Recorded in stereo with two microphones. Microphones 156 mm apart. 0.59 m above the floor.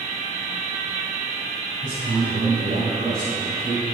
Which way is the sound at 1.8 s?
70° right (ahead or behind).